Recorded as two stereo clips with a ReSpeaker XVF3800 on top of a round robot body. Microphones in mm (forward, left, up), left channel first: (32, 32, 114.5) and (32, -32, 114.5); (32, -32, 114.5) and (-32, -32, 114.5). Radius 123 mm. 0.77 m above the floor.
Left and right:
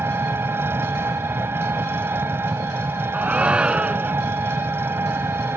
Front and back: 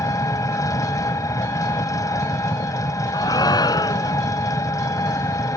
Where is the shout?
15° right.